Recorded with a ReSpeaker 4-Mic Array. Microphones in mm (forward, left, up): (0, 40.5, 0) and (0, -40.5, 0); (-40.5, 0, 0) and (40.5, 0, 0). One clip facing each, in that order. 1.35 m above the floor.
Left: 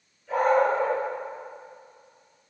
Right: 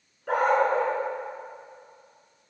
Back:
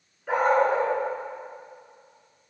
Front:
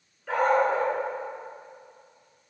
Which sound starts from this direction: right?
A dog barking, at 0.3 s.